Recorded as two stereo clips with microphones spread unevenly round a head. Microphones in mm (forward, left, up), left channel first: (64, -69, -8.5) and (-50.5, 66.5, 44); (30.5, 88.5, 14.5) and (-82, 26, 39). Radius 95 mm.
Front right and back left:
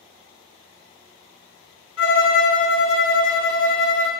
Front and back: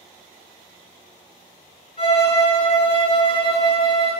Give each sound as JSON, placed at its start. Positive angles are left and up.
{"t": 2.0, "sound": "a violin", "azimuth_deg": -35, "distance_m": 0.7}